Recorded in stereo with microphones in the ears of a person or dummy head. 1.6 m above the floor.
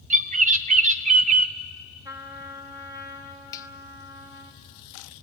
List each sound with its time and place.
0.1 s a bird: 40° right (ahead or behind), 0.6 m
2.0 s a trumpet: 15° right (ahead or behind), 1.6 m
3.5 s a finger snap: 20° left (ahead or behind), 0.6 m